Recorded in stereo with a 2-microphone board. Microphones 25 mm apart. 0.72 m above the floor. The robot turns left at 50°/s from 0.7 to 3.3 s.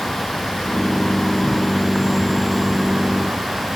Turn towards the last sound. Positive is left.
turn(degrees=-60)